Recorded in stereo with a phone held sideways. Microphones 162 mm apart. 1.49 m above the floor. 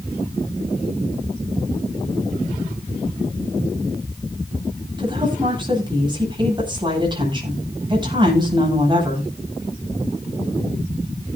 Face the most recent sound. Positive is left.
turn(degrees=-25)  # may be behind; listen again after turning